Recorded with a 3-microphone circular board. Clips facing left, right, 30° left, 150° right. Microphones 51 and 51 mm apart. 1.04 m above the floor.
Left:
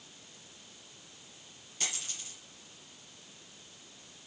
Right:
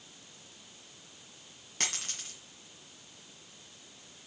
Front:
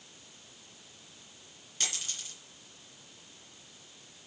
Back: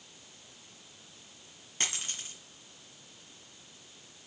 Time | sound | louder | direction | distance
1.8 | a dropped coin | right 3 dB, back 2 dB | 100° right | 2.5 m